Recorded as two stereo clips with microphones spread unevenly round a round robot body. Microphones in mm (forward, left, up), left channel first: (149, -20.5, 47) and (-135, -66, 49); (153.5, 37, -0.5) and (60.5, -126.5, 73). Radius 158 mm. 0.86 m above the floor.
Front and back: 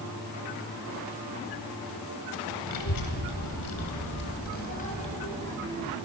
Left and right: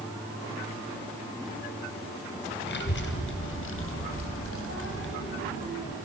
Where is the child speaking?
30° left, 3 m; by 6.0 s 90° left, 4 m.